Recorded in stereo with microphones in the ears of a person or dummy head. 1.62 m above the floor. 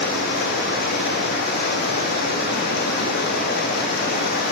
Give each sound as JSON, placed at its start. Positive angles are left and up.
{"t": 0.0, "sound": "running water", "side_deg": 55, "distance_m": 0.8}